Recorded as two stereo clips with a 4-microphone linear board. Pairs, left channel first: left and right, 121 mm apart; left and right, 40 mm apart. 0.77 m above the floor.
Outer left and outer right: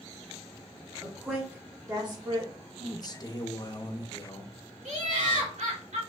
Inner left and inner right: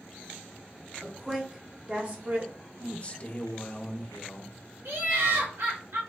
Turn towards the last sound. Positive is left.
turn(degrees=-75)  # may be behind; listen again after turning